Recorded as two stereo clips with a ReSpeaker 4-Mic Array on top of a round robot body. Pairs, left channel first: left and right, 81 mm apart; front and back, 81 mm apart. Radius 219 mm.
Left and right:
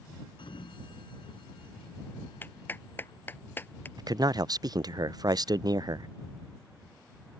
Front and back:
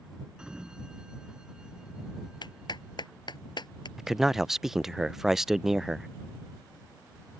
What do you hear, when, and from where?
0.4 s a sliding door: 100° left
2.4 s a clap: 25° left
4.0 s a man speaking: 95° right